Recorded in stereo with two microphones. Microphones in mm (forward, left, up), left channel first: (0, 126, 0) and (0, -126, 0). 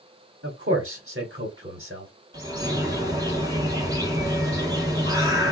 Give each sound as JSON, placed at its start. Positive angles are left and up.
{"t": 0.4, "sound": "a man speaking", "side_deg": -40, "distance_m": 1.3}
{"t": 2.3, "sound": "a bird", "side_deg": -15, "distance_m": 1.8}